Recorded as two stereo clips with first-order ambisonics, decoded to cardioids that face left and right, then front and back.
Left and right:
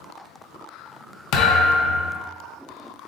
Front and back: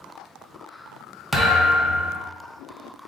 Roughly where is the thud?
Left.